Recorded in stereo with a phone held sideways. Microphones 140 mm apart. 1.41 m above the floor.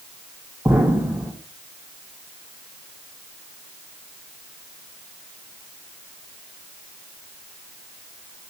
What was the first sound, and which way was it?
An explosion, 5° right (ahead or behind).